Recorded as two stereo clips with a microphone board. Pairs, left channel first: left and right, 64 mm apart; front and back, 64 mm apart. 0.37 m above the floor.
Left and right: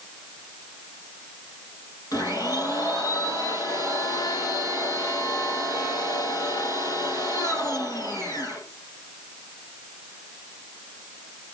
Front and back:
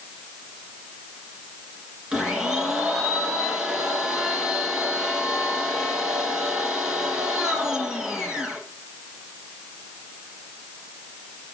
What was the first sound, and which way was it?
A blender, 100° left.